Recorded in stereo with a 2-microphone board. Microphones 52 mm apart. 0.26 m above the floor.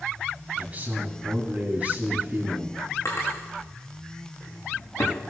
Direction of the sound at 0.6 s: 30° right (ahead or behind).